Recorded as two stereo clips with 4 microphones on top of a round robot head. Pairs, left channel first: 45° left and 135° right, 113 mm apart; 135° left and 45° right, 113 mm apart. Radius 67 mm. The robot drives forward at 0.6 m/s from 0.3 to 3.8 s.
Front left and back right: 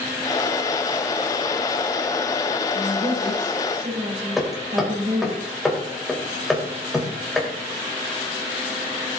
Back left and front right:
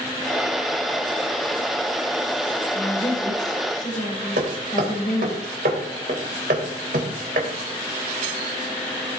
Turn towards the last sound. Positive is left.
turn(degrees=-45)